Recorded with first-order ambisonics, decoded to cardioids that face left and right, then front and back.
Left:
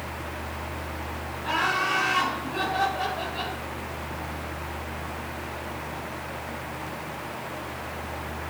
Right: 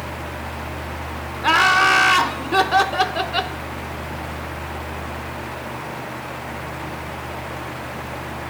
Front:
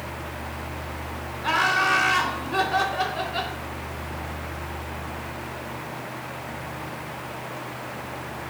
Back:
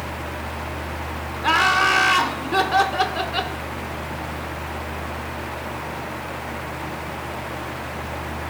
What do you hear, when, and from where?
1.4 s laughter: 110° right, 1.0 m